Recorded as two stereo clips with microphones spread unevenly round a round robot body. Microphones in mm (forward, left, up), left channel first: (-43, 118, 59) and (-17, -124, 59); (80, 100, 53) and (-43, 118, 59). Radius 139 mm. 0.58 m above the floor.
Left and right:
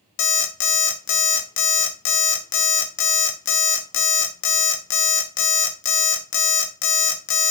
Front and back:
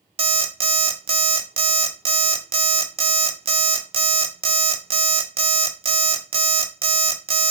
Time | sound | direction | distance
0.2 | an alarm clock | 130° left | 0.6 m